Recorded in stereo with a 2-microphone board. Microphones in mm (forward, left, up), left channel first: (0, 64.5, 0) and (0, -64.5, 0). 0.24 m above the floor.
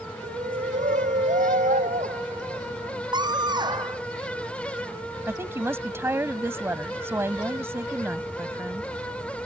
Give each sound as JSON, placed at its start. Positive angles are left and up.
{"t": 0.2, "sound": "a shout", "side_deg": -80}
{"t": 3.1, "sound": "a scream", "side_deg": -35}
{"t": 5.3, "sound": "a woman speaking", "side_deg": -20}